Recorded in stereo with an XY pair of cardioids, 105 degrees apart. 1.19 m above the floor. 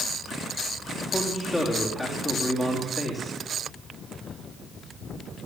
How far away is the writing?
I don't hear writing.